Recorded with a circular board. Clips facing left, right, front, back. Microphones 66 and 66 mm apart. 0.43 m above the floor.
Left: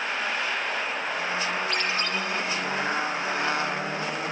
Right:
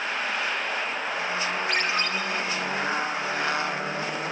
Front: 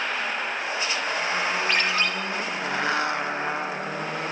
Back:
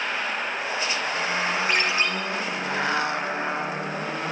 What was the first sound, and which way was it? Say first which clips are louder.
A ringtone: right 2 dB, even; 110° right.